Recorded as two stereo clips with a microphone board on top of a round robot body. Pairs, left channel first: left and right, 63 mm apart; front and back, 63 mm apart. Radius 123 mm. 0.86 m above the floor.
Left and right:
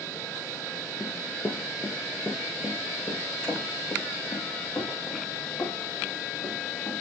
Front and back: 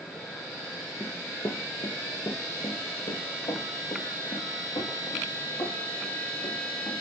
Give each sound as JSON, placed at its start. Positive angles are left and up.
{"t": 1.0, "sound": "running footsteps", "azimuth_deg": 20, "distance_m": 0.9}